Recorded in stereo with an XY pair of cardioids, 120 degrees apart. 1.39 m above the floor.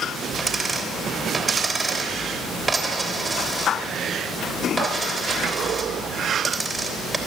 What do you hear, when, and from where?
0.4 s a dropped coin: 25° right, 3 m